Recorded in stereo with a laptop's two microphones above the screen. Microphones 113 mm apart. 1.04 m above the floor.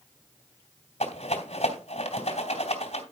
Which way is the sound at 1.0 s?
80° left.